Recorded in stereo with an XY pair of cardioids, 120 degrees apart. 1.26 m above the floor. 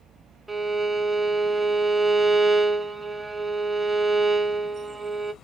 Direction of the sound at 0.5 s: 5° right.